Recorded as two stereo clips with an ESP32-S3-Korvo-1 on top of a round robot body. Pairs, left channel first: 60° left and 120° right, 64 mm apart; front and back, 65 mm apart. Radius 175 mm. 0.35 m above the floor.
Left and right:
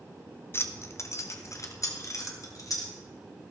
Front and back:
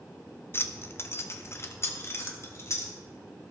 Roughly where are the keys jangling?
Ahead left.